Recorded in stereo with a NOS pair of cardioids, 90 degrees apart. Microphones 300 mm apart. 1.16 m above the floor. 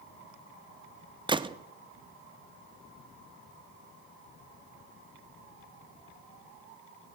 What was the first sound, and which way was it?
A gunshot, 15° right.